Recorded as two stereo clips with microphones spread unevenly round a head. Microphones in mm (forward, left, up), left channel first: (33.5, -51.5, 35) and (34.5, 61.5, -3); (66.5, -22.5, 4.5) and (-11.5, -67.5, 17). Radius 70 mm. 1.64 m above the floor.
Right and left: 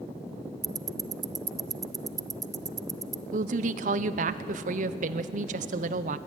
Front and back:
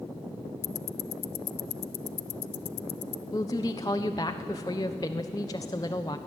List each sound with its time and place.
0.6 s ticking: 35° left, 0.7 m
3.3 s a woman speaking: 95° left, 0.9 m